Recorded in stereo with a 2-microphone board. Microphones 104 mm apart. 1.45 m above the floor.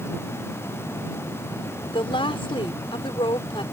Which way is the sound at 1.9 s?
55° left (ahead or behind).